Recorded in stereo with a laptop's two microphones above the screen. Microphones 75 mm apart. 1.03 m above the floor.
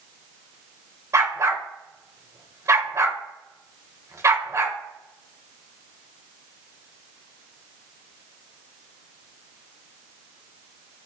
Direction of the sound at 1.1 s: 40° right (ahead or behind).